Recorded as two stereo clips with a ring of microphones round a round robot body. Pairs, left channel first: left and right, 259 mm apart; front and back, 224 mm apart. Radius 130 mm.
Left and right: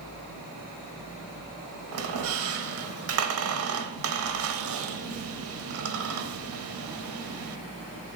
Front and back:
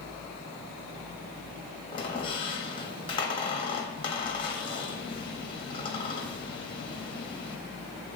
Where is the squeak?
70° right, 0.7 m.